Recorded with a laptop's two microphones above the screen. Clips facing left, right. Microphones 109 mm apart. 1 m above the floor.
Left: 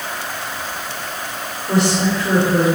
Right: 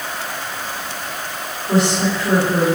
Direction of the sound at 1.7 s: 25° left (ahead or behind).